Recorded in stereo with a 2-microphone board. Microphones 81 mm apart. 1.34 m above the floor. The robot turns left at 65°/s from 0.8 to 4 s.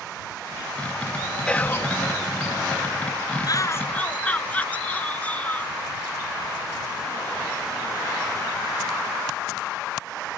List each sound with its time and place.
1.5 s whispering: 15° left (ahead or behind); by 1.9 s 40° left (ahead or behind)
3.5 s a shout: 50° left; by 5.8 s 15° left